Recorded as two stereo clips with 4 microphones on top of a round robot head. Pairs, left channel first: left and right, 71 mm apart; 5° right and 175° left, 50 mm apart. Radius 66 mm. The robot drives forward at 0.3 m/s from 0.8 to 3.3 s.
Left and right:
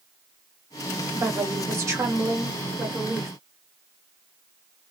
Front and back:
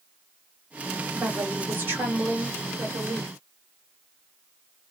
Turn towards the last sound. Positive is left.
turn(degrees=-140)